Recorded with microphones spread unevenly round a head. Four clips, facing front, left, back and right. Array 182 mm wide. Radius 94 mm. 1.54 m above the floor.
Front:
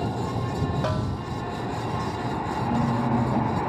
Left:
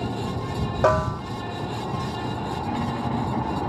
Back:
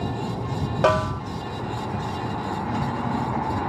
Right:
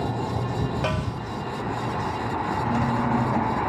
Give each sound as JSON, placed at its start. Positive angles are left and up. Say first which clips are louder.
{"t": 0.8, "sound": "a snare drum", "louder": "left 7 dB, back 8 dB", "azimuth_deg": 140}
{"t": 2.6, "sound": "a squeak", "louder": "right 3 dB, front 5 dB", "azimuth_deg": -45}